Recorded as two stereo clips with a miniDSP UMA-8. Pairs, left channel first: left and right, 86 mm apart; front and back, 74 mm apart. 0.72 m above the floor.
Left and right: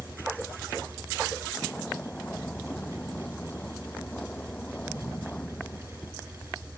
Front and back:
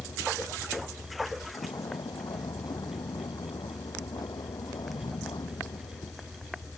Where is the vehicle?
15° left.